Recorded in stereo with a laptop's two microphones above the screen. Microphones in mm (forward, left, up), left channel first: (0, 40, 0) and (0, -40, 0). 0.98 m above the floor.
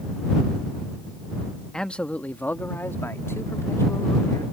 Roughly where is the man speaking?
Centre.